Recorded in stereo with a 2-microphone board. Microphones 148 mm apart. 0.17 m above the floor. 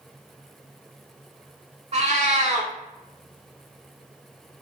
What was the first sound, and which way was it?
A cat meowing, 50° right (ahead or behind).